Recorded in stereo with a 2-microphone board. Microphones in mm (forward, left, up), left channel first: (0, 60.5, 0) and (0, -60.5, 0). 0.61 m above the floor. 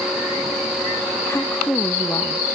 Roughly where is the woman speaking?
Left.